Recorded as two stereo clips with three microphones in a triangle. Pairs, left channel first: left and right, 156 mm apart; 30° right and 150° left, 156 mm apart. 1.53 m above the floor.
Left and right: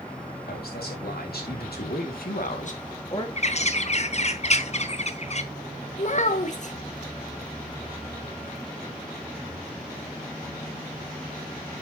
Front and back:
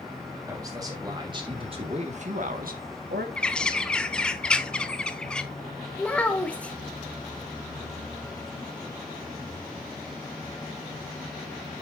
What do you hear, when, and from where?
0.5 s a man speaking: 80° left, 4 m; by 3.3 s 150° left, 1.8 m
3.4 s a bird: 55° left, 0.8 m
6.0 s a child speaking: 50° left, 1.5 m